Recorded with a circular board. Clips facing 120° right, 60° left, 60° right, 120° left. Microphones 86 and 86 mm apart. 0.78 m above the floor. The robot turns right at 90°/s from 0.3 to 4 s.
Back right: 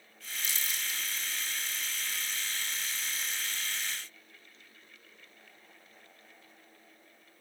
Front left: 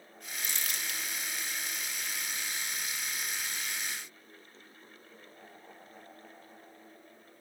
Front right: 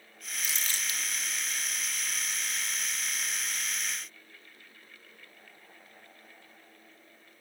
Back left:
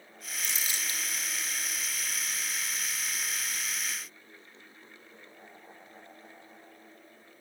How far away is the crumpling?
About 2.5 m.